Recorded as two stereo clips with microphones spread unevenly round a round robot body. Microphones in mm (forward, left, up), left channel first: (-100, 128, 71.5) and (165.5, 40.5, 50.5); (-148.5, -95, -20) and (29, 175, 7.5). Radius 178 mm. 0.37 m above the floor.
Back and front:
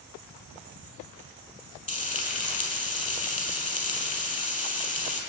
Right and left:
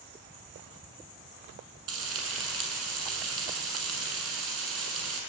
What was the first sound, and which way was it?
Frying, 100° left.